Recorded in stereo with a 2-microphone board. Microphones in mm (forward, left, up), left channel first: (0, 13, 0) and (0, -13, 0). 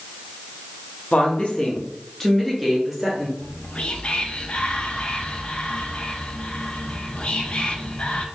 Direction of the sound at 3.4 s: 45° left (ahead or behind).